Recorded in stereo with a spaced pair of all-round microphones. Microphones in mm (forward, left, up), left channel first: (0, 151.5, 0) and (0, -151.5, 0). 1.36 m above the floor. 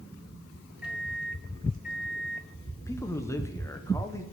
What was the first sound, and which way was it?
A microwave, 5° right (ahead or behind).